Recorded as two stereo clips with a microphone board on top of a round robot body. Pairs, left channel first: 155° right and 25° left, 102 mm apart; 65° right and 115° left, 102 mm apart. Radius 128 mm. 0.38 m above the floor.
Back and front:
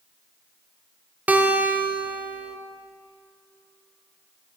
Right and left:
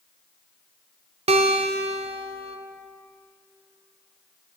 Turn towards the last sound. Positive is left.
turn(degrees=100)